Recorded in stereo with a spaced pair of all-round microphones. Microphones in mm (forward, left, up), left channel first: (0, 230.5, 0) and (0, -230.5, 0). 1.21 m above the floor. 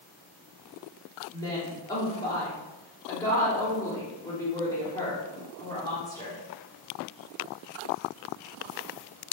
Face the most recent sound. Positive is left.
turn(degrees=5)  # may be behind; listen again after turning